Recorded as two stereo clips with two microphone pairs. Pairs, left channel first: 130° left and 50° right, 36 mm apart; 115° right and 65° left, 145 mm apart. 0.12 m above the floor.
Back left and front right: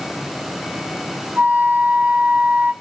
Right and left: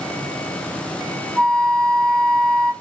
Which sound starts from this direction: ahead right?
A flute, at 1.4 s.